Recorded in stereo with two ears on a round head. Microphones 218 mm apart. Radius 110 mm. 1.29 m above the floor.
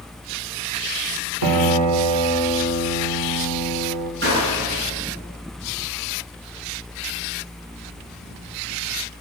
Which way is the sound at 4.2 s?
45° right (ahead or behind).